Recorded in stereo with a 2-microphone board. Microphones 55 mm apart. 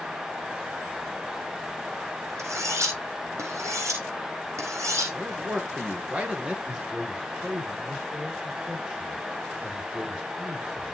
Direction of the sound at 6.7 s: 15° right (ahead or behind).